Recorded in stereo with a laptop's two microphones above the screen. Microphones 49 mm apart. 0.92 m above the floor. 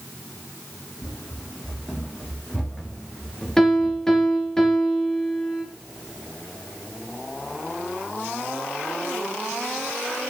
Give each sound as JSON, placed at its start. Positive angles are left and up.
{"t": 1.0, "sound": "running footsteps", "side_deg": 35, "distance_m": 2.5}
{"t": 3.6, "sound": "a piano", "side_deg": 10, "distance_m": 3.0}